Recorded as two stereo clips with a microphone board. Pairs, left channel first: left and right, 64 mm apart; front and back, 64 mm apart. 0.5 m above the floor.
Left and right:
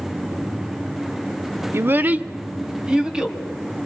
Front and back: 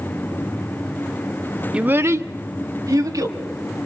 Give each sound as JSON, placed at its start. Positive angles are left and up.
{"t": 1.7, "sound": "a child speaking", "azimuth_deg": -110, "distance_m": 0.7}